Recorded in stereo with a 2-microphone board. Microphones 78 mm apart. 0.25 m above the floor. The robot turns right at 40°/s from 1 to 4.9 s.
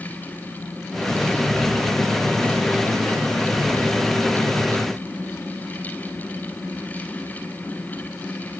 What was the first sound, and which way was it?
Only background noise.